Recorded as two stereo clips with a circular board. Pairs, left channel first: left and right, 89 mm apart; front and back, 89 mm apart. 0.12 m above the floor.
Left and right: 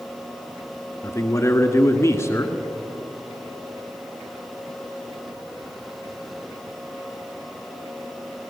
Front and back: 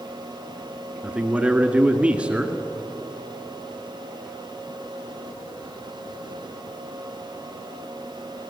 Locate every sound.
1.0 s a man speaking: 115° left, 1.8 m